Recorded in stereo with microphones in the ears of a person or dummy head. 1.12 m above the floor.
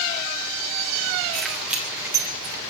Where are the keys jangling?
Centre (ahead or behind), 2.5 m; by 2.5 s 25° right (ahead or behind), 2.5 m.